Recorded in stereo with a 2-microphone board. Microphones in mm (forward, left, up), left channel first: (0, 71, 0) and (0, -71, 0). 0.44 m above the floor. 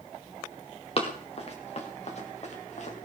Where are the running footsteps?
45° left (ahead or behind), 3 m; by 3.0 s 55° left (ahead or behind), 4.5 m.